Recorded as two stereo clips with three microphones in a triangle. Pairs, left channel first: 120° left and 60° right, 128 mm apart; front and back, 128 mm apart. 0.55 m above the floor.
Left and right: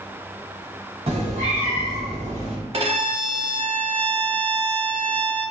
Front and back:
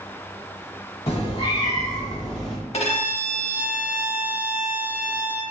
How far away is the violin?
About 0.6 m.